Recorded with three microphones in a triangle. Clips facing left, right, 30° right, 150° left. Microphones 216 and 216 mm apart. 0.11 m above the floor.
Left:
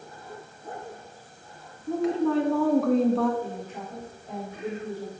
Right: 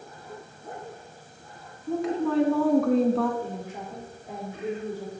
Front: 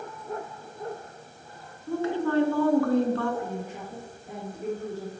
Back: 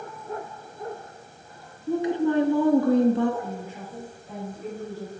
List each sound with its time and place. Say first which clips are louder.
1.9 s a woman speaking: left 2 dB, back 3 dB; straight behind, 1.1 m
3.4 s a woman speaking: even, front 1 dB; 15° right, 3.5 m